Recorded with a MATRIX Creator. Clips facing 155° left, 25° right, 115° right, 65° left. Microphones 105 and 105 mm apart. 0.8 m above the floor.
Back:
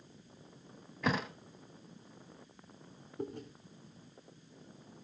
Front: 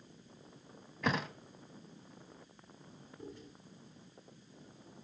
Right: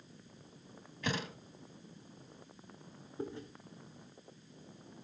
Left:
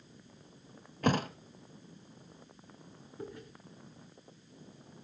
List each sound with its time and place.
1.0 s a thud: 70° left, 0.9 m
3.2 s chewing: 175° right, 3.5 m